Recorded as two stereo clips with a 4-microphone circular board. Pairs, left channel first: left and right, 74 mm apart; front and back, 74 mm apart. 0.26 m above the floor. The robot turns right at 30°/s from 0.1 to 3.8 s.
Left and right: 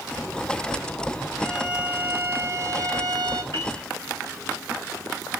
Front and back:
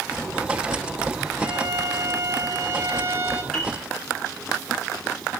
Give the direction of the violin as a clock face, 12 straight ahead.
6 o'clock.